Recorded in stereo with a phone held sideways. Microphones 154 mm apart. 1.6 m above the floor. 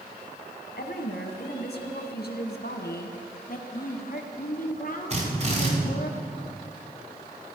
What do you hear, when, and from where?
0.8 s a woman speaking: 85° left, 1.7 m
3.5 s a woman speaking: 60° left (ahead or behind), 1.2 m
5.1 s a drill: 45° right (ahead or behind), 3 m